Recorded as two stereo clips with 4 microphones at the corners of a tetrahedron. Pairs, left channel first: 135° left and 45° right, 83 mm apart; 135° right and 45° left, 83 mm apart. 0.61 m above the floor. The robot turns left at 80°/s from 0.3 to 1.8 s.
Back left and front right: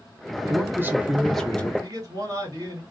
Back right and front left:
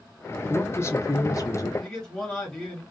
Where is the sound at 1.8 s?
60° right, 1.6 m.